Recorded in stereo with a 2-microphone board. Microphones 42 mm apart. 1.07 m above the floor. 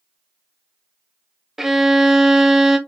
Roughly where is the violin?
Centre.